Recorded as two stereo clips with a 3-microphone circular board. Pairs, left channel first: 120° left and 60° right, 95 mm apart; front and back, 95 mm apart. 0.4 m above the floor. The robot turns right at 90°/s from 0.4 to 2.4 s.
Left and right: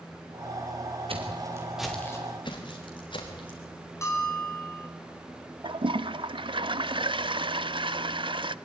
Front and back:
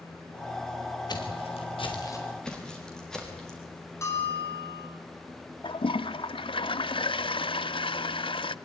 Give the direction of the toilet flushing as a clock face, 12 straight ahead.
1 o'clock.